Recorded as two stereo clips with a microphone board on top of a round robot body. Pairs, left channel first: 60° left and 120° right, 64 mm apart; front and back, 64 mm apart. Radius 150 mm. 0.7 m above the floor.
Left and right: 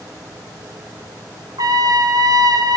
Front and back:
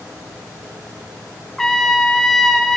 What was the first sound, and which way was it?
A trumpet, 85° right.